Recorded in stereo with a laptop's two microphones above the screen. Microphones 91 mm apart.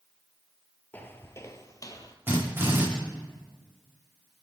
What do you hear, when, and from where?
0.9 s footsteps: 20° left (ahead or behind), 0.9 m; by 2.2 s 45° left (ahead or behind), 1.3 m
2.3 s a drill: 25° right (ahead or behind), 6 m